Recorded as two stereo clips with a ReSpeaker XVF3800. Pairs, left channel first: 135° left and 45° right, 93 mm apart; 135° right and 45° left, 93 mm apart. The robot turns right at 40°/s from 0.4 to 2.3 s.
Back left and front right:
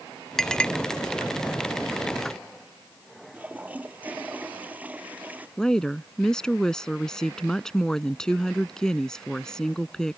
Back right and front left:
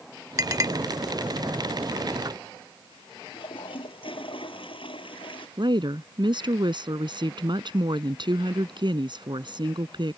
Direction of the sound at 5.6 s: 55° left.